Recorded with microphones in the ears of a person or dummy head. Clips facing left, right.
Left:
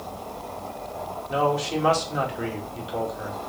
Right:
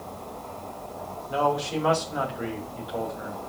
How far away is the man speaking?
About 2 m.